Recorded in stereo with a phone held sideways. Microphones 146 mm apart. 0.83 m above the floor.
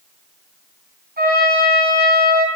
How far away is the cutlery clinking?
I don't hear cutlery clinking.